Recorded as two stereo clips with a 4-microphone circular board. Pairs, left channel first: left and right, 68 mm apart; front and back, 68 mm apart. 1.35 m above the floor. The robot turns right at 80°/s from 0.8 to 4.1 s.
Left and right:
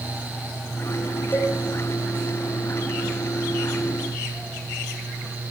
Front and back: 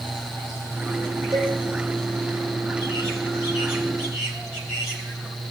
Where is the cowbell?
150° left, 6.5 m; by 1.6 s 170° left, 6.5 m.